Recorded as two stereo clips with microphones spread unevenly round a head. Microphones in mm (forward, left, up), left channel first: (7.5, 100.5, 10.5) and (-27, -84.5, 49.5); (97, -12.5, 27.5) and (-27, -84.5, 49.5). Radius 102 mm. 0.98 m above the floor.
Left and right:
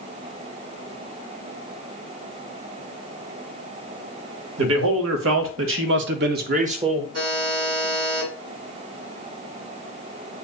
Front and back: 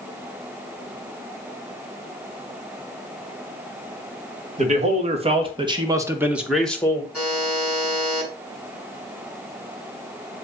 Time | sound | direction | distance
4.6 | a man speaking | 110° right | 2 m
7.1 | a buzzer | 65° right | 5 m